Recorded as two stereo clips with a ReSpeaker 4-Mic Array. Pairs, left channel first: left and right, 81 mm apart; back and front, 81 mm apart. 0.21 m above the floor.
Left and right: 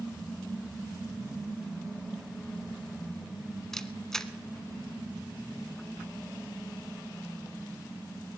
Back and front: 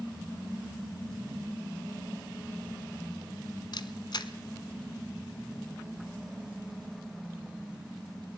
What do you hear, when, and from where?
3.7 s a camera shutter: 175° left, 0.7 m